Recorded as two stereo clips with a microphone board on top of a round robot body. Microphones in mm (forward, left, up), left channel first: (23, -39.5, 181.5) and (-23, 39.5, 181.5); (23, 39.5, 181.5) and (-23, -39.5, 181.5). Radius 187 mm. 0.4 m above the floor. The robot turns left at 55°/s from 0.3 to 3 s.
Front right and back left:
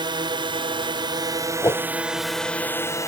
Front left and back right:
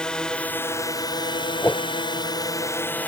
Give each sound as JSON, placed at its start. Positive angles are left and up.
{"t": 0.0, "sound": "a drone", "azimuth_deg": 140}
{"t": 1.6, "sound": "a whoosh", "azimuth_deg": -5}